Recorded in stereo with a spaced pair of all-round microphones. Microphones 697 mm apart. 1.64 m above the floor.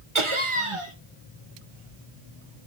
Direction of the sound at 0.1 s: 45° right (ahead or behind).